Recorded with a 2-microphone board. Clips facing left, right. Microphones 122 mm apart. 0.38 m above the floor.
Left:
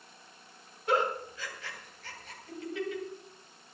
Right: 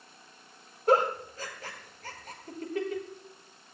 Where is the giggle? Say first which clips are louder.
Right 5 dB; 45° right (ahead or behind), 2.5 m.